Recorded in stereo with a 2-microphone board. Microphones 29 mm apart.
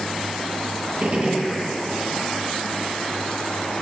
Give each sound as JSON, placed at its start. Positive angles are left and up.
{"t": 1.0, "sound": "a gunshot", "side_deg": -45, "distance_m": 7.5}